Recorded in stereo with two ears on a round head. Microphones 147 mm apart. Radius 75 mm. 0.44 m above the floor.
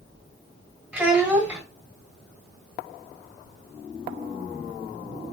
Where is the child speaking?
5° right (ahead or behind), 1.7 m.